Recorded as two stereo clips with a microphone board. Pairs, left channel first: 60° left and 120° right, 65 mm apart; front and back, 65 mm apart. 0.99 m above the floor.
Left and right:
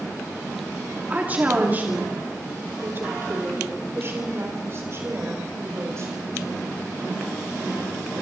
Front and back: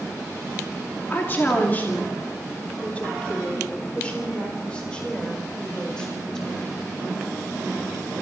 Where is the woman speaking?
55° right, 2.5 m; by 6.7 s 80° right, 5.5 m.